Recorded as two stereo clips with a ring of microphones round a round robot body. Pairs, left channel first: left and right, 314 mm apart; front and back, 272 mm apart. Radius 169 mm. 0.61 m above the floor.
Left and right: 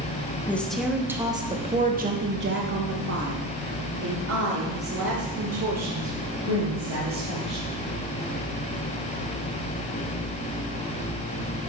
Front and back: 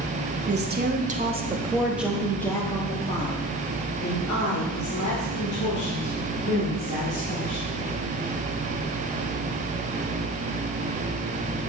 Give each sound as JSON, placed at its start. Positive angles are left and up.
{"t": 0.5, "sound": "a woman speaking", "azimuth_deg": 170, "distance_m": 1.2}